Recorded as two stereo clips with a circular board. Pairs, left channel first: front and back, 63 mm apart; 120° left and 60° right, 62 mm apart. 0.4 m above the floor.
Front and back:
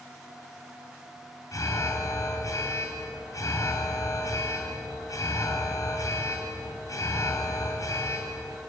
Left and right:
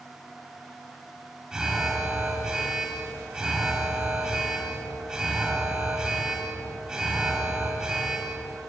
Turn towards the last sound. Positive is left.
turn(degrees=20)